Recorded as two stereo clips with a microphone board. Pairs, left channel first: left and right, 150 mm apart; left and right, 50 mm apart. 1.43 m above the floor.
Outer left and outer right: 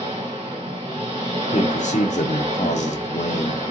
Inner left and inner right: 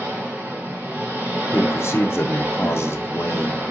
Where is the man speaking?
55° left (ahead or behind), 0.6 m.